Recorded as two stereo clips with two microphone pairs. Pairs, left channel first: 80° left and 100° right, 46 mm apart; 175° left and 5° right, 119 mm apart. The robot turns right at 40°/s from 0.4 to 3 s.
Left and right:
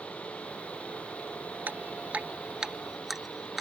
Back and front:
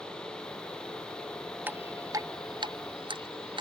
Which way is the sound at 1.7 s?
70° right.